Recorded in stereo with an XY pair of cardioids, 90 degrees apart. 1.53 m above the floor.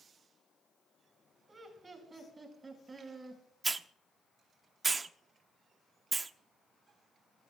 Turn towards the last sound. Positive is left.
turn(degrees=-30)